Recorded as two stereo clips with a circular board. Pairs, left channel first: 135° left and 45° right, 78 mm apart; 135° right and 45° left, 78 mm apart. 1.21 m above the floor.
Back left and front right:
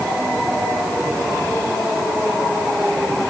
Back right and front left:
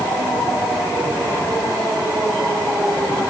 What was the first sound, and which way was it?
Only background noise.